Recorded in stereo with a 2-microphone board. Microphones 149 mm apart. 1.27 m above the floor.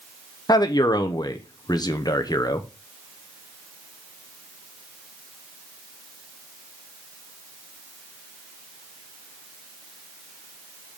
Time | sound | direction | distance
0.5 | a man speaking | 25° left (ahead or behind) | 0.8 m